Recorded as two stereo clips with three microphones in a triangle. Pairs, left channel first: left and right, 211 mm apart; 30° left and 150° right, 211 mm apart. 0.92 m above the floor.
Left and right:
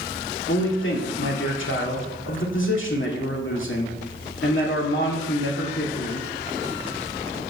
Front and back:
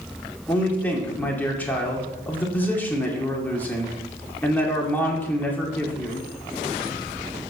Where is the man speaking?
110° left, 2 m.